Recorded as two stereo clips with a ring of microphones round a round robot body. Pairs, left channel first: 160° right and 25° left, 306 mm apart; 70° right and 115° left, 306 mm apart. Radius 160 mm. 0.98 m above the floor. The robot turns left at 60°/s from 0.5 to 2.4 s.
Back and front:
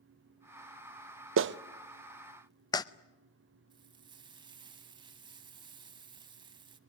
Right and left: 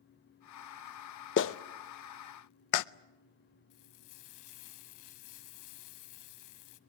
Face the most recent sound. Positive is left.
turn(degrees=-50)